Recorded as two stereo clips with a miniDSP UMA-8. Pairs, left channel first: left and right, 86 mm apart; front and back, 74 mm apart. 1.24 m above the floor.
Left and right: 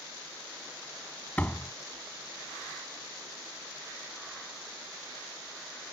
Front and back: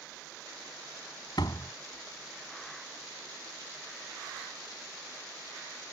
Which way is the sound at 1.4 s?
20° left.